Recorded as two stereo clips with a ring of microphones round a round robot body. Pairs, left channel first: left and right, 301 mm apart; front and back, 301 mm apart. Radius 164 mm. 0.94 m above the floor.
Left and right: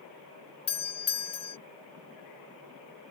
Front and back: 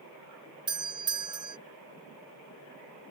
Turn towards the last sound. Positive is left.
turn(degrees=130)